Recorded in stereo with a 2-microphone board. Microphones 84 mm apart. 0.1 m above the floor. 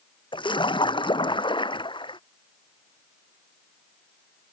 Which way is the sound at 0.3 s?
80° left.